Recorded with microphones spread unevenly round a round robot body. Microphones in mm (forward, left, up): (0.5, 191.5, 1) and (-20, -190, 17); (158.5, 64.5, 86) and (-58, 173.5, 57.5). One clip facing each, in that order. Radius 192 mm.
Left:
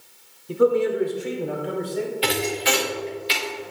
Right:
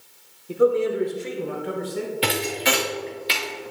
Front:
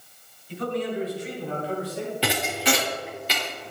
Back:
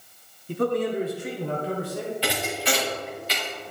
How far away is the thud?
About 3 m.